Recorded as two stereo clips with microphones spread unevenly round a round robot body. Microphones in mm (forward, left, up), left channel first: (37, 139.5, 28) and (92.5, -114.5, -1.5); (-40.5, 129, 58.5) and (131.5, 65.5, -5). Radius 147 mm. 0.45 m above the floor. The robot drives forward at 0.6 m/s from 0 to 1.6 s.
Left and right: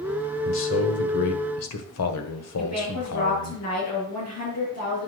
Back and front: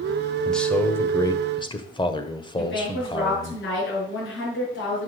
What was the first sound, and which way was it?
A man speaking, 65° left.